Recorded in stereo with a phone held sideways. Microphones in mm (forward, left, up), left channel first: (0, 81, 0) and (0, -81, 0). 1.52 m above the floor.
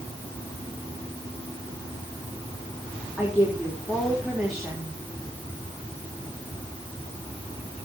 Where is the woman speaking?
Centre (ahead or behind), 4 m.